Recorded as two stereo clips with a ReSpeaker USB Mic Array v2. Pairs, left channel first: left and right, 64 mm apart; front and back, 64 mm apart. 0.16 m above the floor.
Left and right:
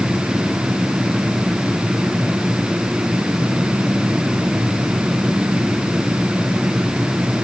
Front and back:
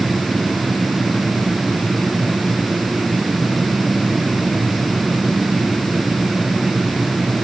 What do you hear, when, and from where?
Only background noise.